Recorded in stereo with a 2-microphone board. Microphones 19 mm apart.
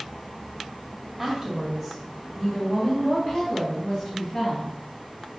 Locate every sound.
1.2 s a woman speaking: 10° right (ahead or behind), 1.6 m; by 4.7 s 40° left (ahead or behind), 2.5 m